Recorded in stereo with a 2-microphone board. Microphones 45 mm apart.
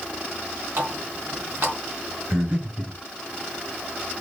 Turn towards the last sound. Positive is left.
turn(degrees=-40)  # may be behind; listen again after turning